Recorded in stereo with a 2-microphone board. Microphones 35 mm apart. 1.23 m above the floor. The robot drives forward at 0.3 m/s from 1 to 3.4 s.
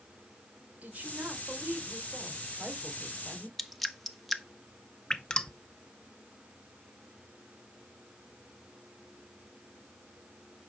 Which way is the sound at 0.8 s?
45° right (ahead or behind).